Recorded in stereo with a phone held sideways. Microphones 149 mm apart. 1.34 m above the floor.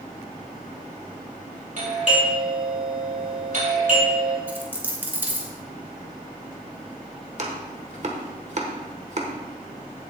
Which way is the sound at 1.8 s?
60° right (ahead or behind).